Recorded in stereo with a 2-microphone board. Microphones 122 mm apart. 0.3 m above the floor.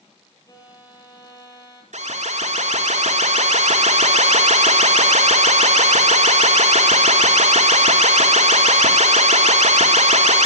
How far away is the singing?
No singing in this recording.